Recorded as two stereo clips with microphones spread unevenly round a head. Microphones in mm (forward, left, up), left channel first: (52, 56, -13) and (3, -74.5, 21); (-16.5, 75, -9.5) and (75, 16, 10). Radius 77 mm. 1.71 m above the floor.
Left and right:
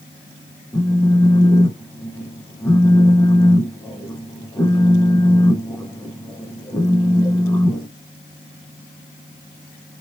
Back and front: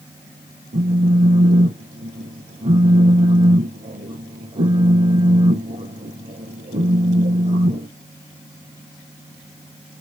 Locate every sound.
0.7 s a phone buzzing: 5° right, 1.0 m